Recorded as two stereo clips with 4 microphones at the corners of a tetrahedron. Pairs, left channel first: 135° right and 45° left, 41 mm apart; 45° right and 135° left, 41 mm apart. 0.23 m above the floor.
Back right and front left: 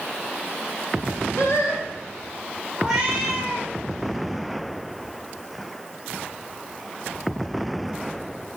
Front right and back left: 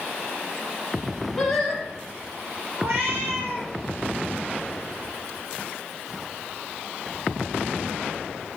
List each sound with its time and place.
1.4 s singing: 135° right, 3.5 m
2.8 s a cat meowing: 120° left, 6 m